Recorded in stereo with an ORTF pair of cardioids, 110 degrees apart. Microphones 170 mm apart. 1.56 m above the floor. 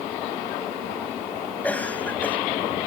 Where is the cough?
10° left.